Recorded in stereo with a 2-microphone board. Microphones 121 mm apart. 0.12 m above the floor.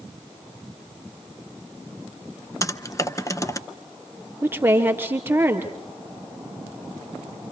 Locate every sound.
2.6 s typing on a keyboard: 25° left (ahead or behind), 0.7 m
4.4 s a woman speaking: 20° right (ahead or behind), 3 m